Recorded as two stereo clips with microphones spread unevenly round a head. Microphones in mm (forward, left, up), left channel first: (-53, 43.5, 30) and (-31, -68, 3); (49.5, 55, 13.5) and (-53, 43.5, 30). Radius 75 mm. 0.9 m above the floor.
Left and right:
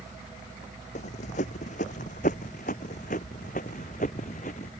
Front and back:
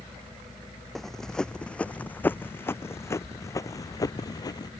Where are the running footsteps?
100° left; by 4.7 s 60° left.